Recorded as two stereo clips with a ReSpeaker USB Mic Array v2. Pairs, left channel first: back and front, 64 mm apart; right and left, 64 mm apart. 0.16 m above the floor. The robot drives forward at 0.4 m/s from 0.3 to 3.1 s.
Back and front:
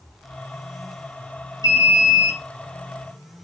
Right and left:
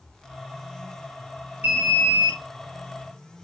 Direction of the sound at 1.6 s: 155° left.